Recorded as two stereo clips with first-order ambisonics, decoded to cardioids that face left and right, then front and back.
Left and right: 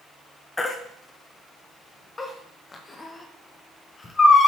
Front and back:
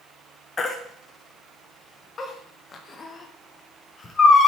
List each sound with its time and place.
0.6 s a baby crying: 35° left, 0.6 m